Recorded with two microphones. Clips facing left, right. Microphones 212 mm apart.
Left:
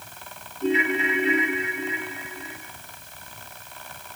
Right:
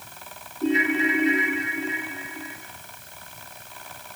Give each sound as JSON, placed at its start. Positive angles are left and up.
{"t": 0.6, "sound": "a ringtone", "side_deg": -40, "distance_m": 6.5}